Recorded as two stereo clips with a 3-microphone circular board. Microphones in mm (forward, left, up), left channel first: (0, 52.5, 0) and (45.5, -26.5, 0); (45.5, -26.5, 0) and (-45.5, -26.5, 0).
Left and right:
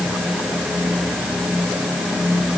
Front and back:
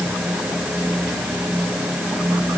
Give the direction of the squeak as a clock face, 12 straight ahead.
I don't hear a squeak.